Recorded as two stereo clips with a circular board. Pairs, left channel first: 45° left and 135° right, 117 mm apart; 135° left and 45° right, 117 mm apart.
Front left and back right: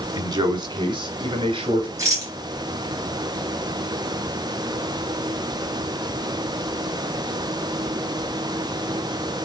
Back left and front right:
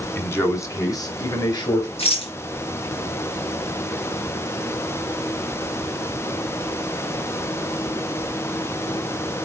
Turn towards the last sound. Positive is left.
turn(degrees=165)